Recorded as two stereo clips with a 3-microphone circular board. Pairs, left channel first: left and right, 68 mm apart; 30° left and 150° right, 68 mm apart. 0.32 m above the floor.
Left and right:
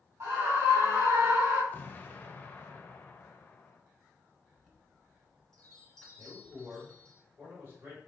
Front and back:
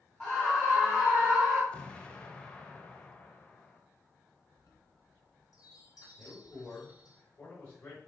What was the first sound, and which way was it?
A scream, 40° right.